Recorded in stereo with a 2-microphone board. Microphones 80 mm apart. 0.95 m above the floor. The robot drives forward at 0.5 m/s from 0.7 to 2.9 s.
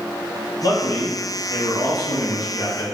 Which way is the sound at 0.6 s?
50° left (ahead or behind).